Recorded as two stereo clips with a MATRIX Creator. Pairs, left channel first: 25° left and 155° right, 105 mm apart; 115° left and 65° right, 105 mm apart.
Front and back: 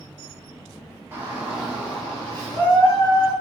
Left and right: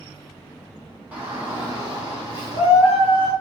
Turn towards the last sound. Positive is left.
turn(degrees=-20)